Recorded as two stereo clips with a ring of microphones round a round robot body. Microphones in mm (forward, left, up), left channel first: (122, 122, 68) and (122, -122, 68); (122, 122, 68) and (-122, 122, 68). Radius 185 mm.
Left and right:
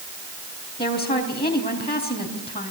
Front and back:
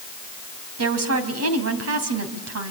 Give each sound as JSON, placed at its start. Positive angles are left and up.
{"t": 0.8, "sound": "a woman speaking", "azimuth_deg": 165, "distance_m": 4.0}